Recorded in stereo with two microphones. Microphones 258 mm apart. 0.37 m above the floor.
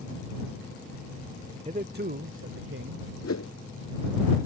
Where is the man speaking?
25° right (ahead or behind); by 3.1 s 60° right (ahead or behind).